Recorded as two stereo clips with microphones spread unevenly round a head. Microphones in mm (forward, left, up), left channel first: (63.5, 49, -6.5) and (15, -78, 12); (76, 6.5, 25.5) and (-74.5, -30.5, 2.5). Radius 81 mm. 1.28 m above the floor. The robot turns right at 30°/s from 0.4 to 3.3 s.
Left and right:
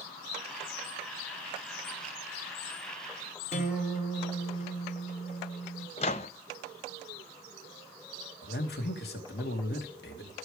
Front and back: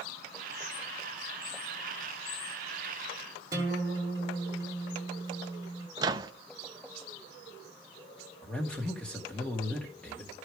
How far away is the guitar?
About 2 m.